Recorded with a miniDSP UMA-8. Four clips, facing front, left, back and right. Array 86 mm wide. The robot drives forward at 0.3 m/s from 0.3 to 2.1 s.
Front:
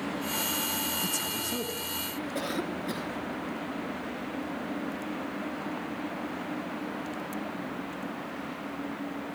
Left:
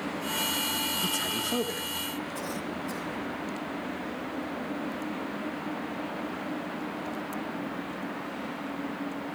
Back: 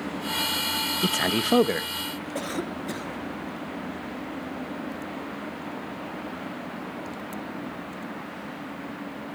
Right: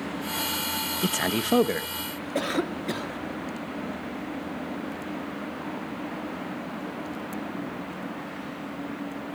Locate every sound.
1.0 s a man speaking: 145° right, 1.4 m; by 1.9 s 150° right, 1.6 m
2.4 s a cough: 95° right, 3.5 m